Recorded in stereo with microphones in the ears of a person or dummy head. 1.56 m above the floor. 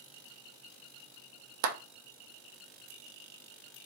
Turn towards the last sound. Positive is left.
turn(degrees=-70)  # may be behind; listen again after turning